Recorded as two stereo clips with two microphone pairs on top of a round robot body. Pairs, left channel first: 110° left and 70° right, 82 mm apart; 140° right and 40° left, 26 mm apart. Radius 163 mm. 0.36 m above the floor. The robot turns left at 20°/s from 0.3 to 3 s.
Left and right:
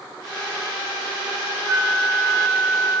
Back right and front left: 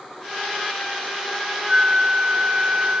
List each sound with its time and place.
1.7 s a flute: 160° right, 6 m; by 3.0 s 175° left, 6 m